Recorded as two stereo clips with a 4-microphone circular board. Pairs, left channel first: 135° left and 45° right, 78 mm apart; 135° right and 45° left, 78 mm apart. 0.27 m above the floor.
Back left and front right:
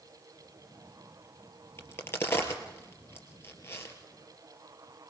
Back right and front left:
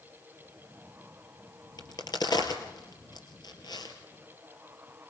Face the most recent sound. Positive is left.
turn(degrees=-165)